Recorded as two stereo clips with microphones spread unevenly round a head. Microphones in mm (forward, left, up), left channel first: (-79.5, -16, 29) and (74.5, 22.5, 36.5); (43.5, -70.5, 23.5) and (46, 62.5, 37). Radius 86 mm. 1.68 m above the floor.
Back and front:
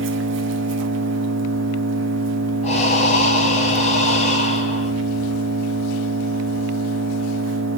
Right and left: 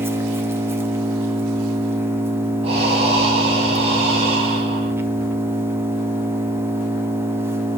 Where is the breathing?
145° left, 6 m.